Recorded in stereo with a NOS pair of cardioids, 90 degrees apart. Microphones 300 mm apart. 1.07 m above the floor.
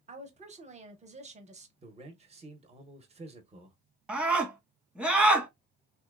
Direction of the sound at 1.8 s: 20° right.